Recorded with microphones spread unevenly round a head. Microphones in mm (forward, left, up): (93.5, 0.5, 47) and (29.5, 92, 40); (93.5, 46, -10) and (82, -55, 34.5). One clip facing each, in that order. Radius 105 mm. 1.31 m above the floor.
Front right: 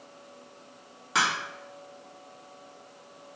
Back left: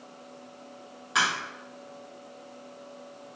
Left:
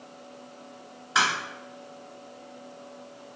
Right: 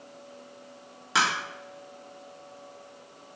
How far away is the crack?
About 1.5 m.